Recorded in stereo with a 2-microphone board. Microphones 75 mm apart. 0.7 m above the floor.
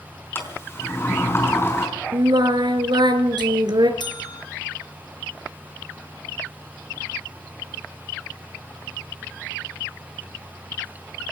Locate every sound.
0.3 s a sliding door: 30° left (ahead or behind), 4.5 m
2.1 s singing: 80° right, 3 m
4.0 s a bell: 80° left, 3.5 m